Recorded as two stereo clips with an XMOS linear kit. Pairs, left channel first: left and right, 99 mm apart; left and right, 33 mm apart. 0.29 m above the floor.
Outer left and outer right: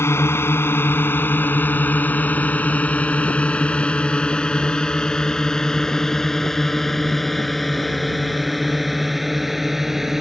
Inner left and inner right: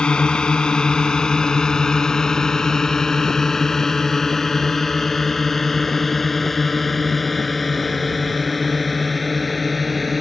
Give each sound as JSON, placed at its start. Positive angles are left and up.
{"t": 0.0, "sound": "a drone", "side_deg": 25}